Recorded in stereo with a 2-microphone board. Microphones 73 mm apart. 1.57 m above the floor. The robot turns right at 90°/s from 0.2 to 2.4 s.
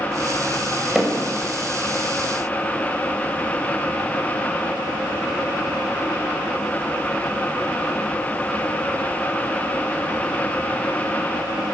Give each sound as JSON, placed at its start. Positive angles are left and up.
{"t": 0.9, "sound": "hammering", "side_deg": -5, "distance_m": 6.5}